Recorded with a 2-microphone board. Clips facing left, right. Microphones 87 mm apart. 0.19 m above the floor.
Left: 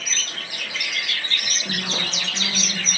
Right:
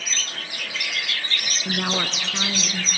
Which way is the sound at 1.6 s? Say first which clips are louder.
Right 6 dB; 55° right (ahead or behind).